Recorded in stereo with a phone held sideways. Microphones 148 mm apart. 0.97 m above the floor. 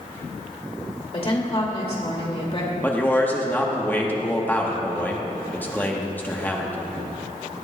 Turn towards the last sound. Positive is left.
turn(degrees=15)  # may be behind; listen again after turning